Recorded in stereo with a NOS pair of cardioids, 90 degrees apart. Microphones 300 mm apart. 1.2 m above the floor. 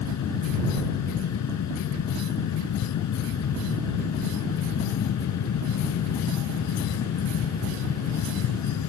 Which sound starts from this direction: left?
A fan, at 0.0 s.